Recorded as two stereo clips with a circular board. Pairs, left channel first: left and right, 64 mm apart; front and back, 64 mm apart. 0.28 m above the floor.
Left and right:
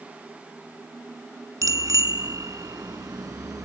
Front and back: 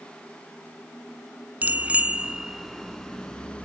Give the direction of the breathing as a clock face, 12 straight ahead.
No breathing in this recording.